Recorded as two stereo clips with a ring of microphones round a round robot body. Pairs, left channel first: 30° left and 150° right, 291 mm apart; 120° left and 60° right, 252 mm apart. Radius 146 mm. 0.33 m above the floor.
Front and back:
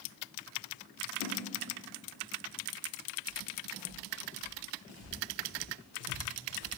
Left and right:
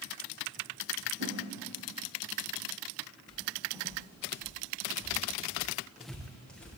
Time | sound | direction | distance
1.2 | a whoosh | 10° right | 7.5 m
3.3 | footsteps | 15° left | 6.5 m